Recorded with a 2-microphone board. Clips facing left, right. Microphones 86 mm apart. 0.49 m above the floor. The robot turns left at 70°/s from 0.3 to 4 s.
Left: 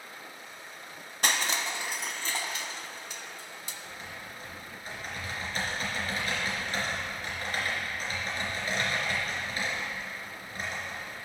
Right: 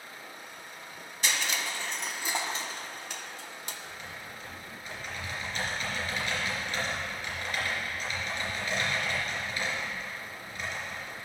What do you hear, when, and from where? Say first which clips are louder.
1.2 s crushing: left 2 dB; 55° left (ahead or behind), 0.6 m; by 3.8 s 55° right (ahead or behind), 0.6 m
3.9 s typing on a keyboard: even; 30° left (ahead or behind), 3 m; by 11.2 s 40° left (ahead or behind), 3 m